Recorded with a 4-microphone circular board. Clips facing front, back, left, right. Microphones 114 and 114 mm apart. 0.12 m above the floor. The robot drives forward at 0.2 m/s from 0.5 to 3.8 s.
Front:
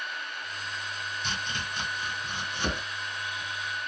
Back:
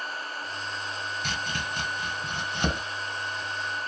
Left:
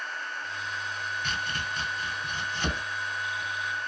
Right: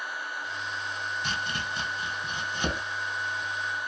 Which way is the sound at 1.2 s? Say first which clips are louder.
Back 2 dB, even; 155° right.